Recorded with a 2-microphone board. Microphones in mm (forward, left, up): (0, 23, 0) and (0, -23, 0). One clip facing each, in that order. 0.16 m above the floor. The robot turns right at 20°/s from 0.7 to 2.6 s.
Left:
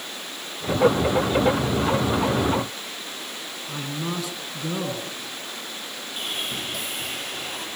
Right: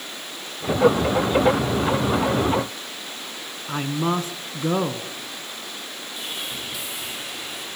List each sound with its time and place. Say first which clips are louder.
3.7 s a man speaking: right 7 dB; 35° right (ahead or behind), 1.6 m
6.2 s sawing: left 3 dB; 50° left (ahead or behind), 7 m